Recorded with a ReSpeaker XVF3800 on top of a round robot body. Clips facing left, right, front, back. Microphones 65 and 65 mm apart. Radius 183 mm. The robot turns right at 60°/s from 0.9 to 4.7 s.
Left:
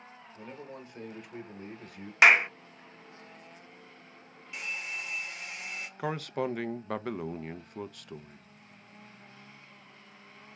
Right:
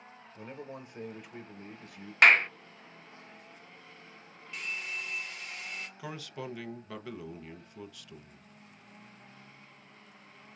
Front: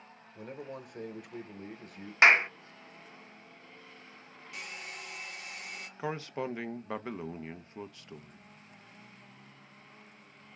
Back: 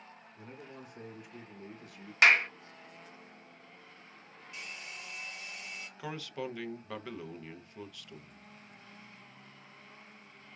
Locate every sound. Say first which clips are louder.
0.3 s a man speaking: right 1 dB, front 7 dB; 20° right, 0.9 m; by 2.1 s 55° left, 0.9 m
2.2 s a clap: left 1 dB, front 2 dB; 15° left, 0.5 m; by 2.5 s 35° left, 0.5 m
4.5 s a hair dryer: even, front 2 dB; 10° left, 2.0 m; by 5.9 s 20° left, 2.0 m
6.0 s a man speaking: left 12 dB, front 4 dB; 55° left, 0.6 m